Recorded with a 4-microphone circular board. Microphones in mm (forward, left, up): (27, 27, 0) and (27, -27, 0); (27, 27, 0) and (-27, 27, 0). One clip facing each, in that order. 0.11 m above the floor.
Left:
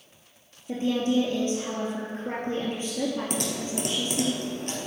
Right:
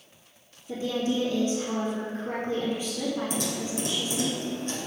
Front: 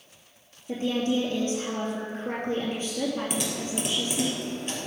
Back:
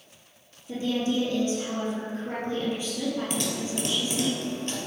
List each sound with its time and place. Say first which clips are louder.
0.7 s a woman speaking: left 3 dB, front 1 dB; 45° left, 3 m
3.3 s typing on a keyboard: even, back 1 dB; 80° left, 2.5 m